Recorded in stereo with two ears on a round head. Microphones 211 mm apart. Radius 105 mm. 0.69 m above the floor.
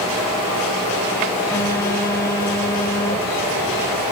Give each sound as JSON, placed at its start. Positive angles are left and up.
{"t": 1.5, "sound": "a phone buzzing", "side_deg": 15, "distance_m": 3.5}